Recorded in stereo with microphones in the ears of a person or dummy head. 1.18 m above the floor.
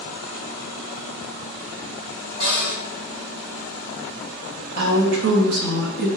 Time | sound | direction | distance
2.4 | a cupboard door | 20° right (ahead or behind) | 0.8 m
4.8 | a woman speaking | 60° right (ahead or behind) | 0.7 m